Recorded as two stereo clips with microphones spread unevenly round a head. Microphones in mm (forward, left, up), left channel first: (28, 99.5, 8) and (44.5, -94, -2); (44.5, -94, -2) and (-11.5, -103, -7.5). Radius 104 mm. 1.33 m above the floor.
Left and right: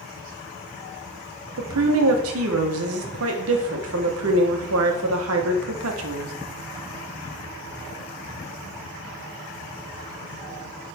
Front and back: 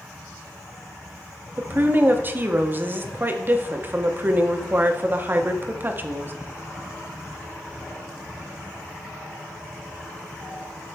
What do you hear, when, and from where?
1.6 s a woman speaking: 115° right, 0.9 m